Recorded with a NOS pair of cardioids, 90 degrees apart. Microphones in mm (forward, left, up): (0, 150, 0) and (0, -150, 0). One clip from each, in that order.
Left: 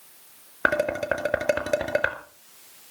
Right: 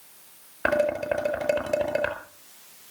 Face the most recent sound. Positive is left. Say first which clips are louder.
# even
turn(degrees=40)